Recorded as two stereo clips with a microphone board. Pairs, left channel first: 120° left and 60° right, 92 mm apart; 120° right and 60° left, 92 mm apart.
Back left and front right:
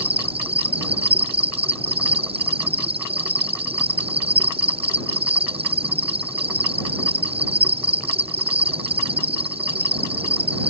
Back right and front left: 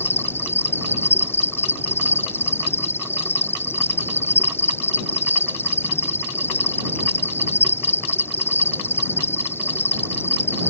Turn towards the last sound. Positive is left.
turn(degrees=-55)